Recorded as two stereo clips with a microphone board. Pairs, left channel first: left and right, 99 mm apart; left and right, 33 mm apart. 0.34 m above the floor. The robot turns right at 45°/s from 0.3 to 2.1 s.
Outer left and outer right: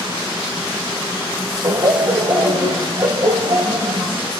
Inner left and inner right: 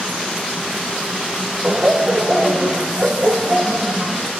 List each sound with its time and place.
1.6 s laughter: 50° right (ahead or behind), 1.6 m; by 4.3 s 45° right (ahead or behind), 1.6 m